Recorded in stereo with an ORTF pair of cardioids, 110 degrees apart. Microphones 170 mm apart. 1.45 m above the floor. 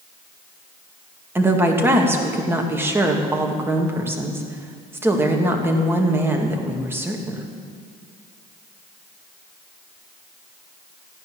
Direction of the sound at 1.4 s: 15° right.